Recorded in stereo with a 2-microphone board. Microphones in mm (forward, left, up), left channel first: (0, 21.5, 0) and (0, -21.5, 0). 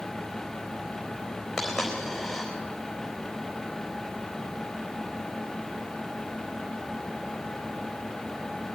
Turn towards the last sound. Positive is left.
turn(degrees=0)  # may be behind; listen again after turning